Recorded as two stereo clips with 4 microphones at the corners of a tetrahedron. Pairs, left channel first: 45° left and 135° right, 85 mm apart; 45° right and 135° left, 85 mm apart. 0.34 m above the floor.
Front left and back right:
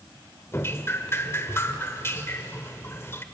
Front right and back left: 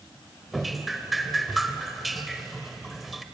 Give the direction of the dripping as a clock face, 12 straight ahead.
10 o'clock.